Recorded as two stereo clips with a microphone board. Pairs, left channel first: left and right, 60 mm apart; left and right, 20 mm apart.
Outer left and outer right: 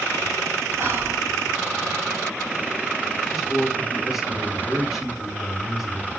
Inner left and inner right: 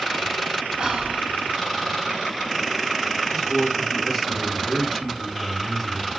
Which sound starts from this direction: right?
Whispering, at 0.8 s.